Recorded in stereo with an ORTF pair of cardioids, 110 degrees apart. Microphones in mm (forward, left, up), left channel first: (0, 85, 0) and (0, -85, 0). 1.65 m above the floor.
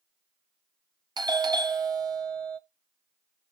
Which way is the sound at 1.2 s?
20° right.